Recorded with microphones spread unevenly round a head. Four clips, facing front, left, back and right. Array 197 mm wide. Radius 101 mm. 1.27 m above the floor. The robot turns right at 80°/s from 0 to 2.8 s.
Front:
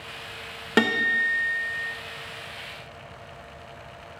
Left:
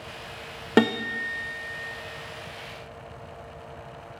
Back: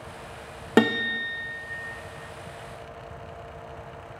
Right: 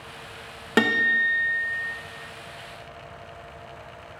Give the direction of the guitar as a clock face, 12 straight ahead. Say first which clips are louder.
Even, back 1 dB; 8 o'clock.